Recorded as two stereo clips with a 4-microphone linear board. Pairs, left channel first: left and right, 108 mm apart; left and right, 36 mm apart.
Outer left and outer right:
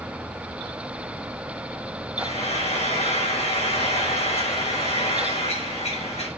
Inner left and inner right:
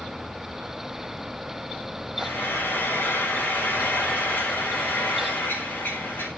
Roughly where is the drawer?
I don't hear a drawer.